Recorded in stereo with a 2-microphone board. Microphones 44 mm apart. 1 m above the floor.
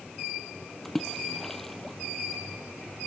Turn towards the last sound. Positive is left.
turn(degrees=5)  # may be behind; listen again after turning